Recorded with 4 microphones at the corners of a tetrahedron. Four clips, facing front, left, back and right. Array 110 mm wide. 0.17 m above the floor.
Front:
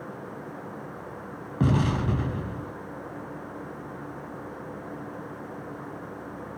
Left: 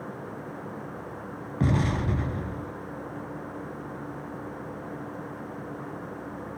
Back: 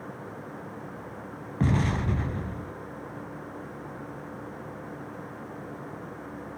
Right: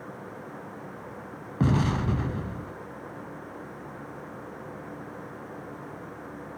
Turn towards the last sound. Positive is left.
turn(degrees=-50)